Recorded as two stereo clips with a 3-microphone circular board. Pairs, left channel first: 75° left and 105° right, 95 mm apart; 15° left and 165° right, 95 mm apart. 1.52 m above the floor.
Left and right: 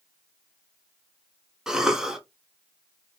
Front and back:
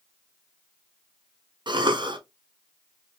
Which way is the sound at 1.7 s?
170° left.